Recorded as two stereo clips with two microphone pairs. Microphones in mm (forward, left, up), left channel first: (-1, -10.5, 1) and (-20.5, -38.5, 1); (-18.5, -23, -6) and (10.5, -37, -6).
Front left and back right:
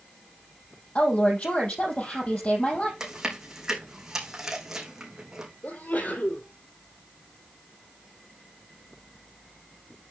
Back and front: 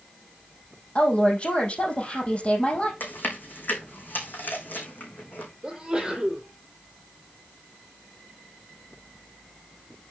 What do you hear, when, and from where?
0.9 s a woman speaking: 105° left, 4 m
3.0 s chewing: 160° left, 3.5 m
5.6 s a sneeze: 40° left, 2.5 m